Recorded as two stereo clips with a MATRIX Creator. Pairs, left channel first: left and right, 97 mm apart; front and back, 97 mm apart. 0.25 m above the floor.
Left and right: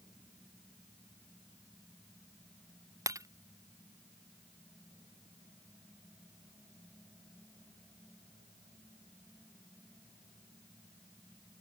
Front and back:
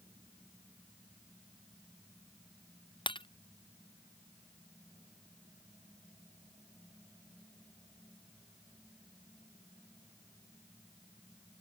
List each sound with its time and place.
3.1 s breaking glass: 35° right